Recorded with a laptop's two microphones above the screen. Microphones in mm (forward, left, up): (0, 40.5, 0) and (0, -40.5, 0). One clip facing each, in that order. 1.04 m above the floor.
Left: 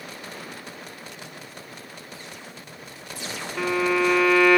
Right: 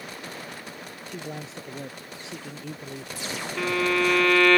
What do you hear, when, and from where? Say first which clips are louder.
1.1 s a man speaking: right 5 dB; 85° right; by 3.5 s 90° right
3.6 s a violin: left 2 dB; 10° left (ahead or behind)